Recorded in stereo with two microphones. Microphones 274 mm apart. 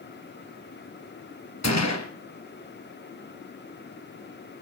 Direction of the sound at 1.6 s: 75° left (ahead or behind).